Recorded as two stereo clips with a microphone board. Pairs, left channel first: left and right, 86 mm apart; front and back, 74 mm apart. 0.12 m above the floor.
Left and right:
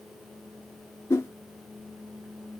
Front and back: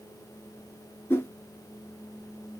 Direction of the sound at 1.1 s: 45° left.